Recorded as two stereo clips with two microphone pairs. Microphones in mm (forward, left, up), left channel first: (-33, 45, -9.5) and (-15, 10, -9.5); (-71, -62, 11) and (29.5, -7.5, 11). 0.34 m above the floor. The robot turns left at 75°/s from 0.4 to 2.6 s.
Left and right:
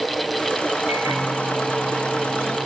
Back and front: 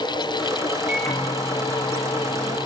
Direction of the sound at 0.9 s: 45° right.